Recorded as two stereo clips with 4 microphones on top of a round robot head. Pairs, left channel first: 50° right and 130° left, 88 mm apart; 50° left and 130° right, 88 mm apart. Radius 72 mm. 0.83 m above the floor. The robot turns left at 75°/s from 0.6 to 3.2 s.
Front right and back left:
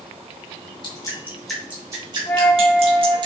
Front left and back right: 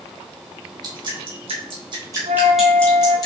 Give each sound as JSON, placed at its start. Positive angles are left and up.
{"t": 0.8, "sound": "dripping", "azimuth_deg": -85, "distance_m": 3.5}
{"t": 2.3, "sound": "a flute", "azimuth_deg": -110, "distance_m": 0.9}